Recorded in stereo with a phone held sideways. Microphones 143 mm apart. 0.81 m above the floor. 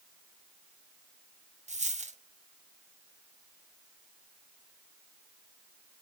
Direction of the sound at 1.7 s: 50° right (ahead or behind).